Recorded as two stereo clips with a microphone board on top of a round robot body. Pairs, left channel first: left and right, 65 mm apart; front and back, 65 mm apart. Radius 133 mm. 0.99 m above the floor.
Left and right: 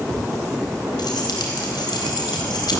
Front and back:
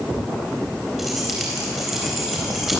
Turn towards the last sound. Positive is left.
turn(degrees=90)